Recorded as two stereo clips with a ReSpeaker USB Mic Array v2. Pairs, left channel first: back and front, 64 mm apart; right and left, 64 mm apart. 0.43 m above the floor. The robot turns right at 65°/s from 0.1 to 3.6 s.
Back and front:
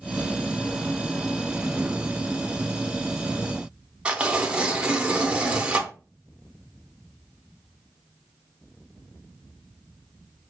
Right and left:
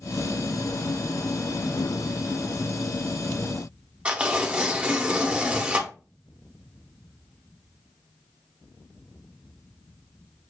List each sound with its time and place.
4.0 s tearing paper: 50° left, 0.7 m